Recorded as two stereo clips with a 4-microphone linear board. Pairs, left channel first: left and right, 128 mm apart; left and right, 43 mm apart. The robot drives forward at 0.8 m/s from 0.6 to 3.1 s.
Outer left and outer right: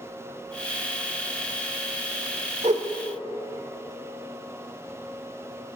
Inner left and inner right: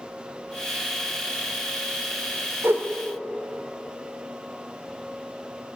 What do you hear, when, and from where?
2.6 s a whoosh: 60° right (ahead or behind), 1.1 m; by 2.8 s 55° right (ahead or behind), 1.2 m